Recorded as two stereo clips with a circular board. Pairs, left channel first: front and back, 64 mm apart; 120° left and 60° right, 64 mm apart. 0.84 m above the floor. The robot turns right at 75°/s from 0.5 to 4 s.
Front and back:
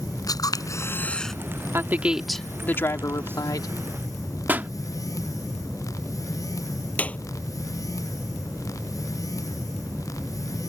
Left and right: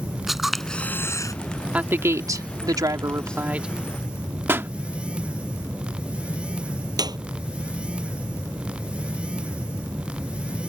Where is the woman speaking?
130° right; by 3.7 s 15° left.